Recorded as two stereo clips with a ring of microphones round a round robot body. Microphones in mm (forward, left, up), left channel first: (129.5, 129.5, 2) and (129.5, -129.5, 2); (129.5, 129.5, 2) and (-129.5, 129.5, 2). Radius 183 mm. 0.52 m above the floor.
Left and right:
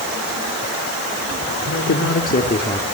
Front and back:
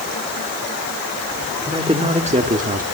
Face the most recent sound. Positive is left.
turn(degrees=165)